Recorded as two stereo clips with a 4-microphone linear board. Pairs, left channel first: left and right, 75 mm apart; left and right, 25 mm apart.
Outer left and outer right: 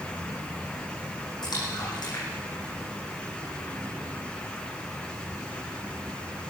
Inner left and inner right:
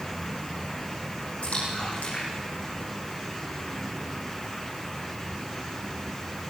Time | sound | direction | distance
1.4 | a splash | 65° left (ahead or behind) | 9.5 m